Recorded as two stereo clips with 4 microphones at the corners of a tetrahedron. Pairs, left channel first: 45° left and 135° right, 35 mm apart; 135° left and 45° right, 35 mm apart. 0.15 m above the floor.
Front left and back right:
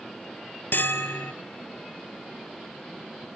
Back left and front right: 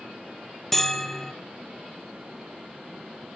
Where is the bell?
55° left, 1.3 m.